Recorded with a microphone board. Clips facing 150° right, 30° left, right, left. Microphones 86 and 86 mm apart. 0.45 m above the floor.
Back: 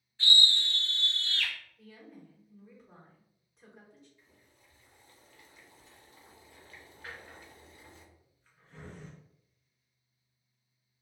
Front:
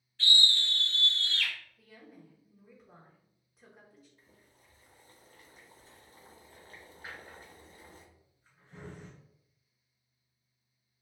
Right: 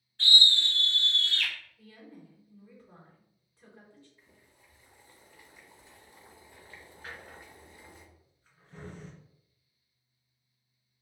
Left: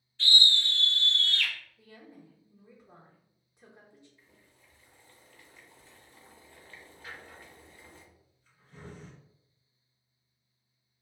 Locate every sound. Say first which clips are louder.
0.2 s a scream: back 1 dB, even; 75° right, 1.4 m; by 1.5 s straight ahead, 1.4 m
1.8 s a woman speaking: back 2 dB, right 1 dB; 105° left, 0.9 m
4.2 s boiling: front 1 dB, right 1 dB; 15° right, 0.6 m
7.0 s a drawer: even, right 1 dB; 45° right, 2.0 m